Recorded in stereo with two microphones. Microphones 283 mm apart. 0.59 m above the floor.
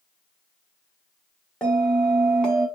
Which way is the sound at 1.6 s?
5° left (ahead or behind).